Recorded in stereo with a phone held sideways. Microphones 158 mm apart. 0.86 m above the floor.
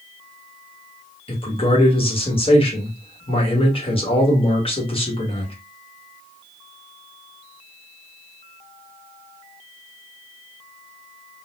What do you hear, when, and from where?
1.3 s a man speaking: 35° left (ahead or behind), 1.3 m